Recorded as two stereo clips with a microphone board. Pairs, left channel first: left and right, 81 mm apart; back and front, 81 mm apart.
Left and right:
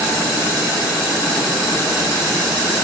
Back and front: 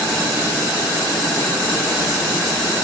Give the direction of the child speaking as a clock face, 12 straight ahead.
I don't hear a child speaking.